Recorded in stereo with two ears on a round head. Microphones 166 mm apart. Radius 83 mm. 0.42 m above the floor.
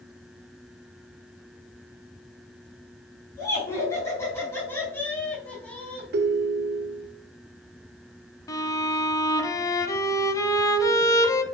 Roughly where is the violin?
Centre.